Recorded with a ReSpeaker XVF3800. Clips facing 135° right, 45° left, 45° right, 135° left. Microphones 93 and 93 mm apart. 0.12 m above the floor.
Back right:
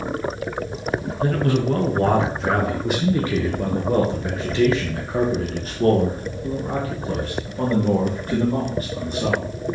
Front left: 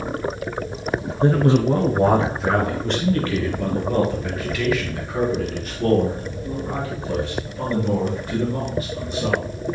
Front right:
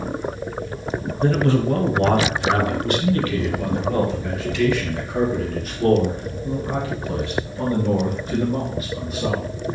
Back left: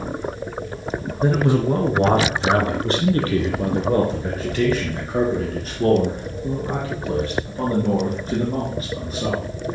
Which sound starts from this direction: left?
A man speaking, at 1.2 s.